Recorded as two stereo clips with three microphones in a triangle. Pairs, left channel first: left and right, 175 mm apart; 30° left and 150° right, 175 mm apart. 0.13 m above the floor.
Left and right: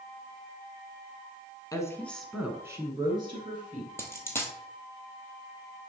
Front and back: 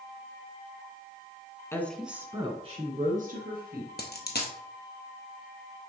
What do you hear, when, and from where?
1.7 s a woman speaking: 75° left, 1.2 m; by 3.9 s 145° right, 2.5 m
4.0 s a dropped coin: 15° left, 1.4 m